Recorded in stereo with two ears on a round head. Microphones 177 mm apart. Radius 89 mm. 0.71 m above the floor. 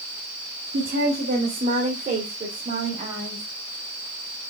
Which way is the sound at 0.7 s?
60° right (ahead or behind).